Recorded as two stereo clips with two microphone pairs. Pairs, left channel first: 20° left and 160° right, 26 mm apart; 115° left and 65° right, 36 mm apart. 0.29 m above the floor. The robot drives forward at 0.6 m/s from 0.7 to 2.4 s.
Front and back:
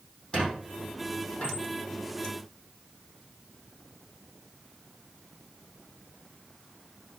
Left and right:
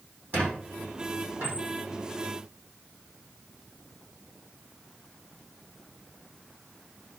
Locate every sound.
0.3 s a squeak: 35° right, 5.5 m